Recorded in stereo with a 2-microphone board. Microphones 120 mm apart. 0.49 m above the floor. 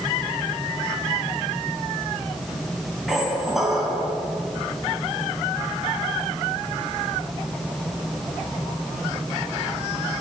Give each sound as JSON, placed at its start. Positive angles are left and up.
{"t": 3.1, "sound": "a squeak", "side_deg": -5, "distance_m": 3.0}